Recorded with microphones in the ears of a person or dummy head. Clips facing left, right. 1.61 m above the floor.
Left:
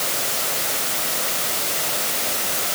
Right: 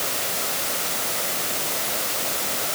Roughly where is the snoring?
No snoring in this recording.